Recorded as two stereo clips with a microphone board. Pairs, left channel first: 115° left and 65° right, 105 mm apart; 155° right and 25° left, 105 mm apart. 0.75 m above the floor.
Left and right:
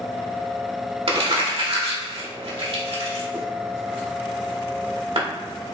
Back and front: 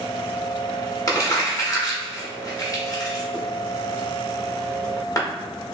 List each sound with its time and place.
1.1 s crumpling: 100° right, 1.1 m